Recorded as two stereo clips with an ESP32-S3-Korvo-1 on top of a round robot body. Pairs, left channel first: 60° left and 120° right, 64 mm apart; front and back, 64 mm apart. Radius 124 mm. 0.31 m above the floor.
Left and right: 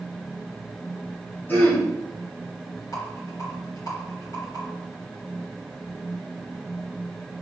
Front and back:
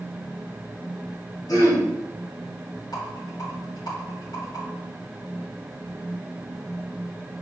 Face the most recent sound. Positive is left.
turn(degrees=25)